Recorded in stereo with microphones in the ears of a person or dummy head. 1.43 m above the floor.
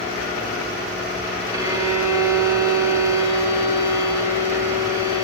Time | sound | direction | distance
1.5 | a violin | 15° right (ahead or behind) | 4 m